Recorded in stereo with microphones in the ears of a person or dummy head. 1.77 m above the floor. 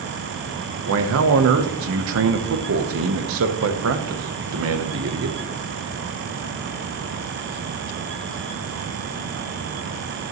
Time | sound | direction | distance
0.9 | a man speaking | 70° right (ahead or behind) | 0.9 m